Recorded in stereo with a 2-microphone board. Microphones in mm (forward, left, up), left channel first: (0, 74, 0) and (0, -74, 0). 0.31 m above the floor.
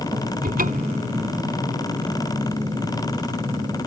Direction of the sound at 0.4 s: 75° right (ahead or behind).